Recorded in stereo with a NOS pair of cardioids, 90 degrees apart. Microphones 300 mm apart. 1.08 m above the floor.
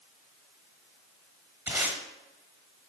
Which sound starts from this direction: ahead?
Tape being pulled, at 1.7 s.